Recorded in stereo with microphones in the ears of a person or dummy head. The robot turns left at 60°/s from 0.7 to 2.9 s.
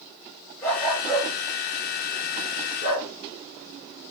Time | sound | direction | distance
0.6 | a dog barking | 15° left (ahead or behind) | 5.5 m